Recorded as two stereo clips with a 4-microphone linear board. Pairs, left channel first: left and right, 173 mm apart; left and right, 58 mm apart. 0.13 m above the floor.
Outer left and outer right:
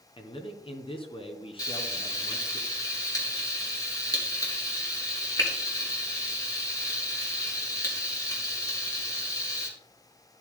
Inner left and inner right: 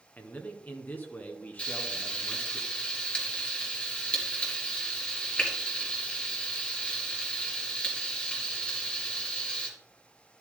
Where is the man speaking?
30° left (ahead or behind), 1.4 m.